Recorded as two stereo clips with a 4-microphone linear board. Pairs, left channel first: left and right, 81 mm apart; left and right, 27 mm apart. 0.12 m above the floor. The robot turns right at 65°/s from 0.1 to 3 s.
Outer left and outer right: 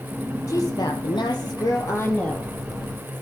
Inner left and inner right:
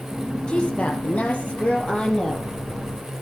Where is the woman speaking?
45° left, 4 m; by 2.5 s 175° left, 4 m.